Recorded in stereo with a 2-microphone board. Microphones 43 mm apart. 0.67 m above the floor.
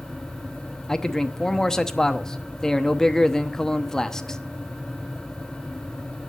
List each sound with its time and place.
0.9 s a man speaking: 15° left (ahead or behind), 0.8 m